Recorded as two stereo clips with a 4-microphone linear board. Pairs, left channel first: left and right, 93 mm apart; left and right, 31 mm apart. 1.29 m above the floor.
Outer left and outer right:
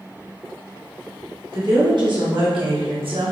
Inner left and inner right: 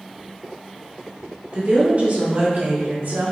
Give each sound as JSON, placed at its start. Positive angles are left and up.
{"t": 1.5, "sound": "a woman speaking", "side_deg": -55, "distance_m": 1.7}